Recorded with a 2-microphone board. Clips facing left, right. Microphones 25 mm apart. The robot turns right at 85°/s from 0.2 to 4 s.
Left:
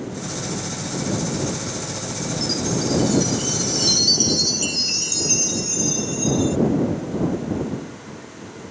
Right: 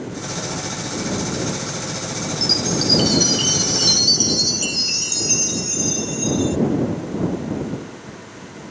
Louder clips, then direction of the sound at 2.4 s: Right 5 dB; 145° right.